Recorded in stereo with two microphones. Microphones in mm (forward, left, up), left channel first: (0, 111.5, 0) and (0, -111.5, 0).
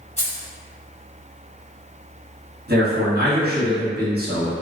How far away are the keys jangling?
About 1.1 m.